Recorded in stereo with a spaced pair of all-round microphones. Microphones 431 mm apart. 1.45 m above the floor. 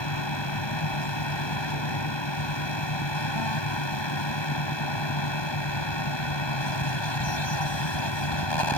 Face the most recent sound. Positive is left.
turn(degrees=85)